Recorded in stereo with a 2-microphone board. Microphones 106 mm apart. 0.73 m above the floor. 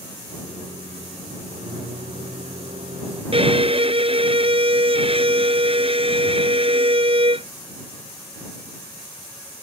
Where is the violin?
60° right (ahead or behind).